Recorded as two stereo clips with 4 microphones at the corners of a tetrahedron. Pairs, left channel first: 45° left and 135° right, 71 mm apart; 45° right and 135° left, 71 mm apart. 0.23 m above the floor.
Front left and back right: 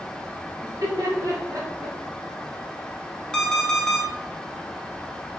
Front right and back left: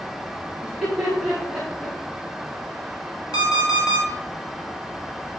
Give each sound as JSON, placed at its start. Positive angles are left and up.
{"t": 0.6, "sound": "laughter", "azimuth_deg": -135, "distance_m": 2.0}
{"t": 3.3, "sound": "an alarm clock", "azimuth_deg": -35, "distance_m": 1.6}